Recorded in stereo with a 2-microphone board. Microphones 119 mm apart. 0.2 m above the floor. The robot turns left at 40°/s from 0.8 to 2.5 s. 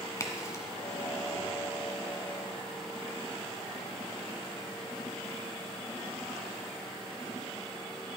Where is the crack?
25° left (ahead or behind), 1.6 m.